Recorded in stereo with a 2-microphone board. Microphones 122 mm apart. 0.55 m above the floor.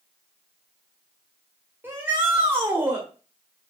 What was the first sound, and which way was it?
A shout, 15° right (ahead or behind).